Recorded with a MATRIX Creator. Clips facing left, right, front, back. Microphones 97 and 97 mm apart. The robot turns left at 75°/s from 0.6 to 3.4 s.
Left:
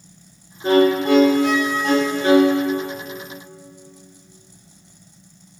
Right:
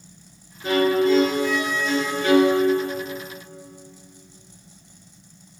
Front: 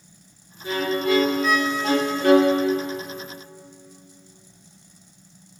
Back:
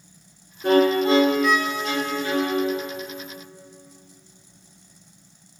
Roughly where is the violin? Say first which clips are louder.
Left 3 dB, back 6 dB; behind left.